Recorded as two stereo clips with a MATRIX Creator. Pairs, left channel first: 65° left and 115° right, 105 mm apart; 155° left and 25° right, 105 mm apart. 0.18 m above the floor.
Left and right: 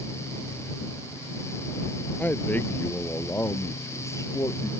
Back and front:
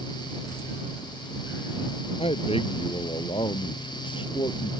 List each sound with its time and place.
2.2 s a man speaking: 140° left; by 4.7 s 120° left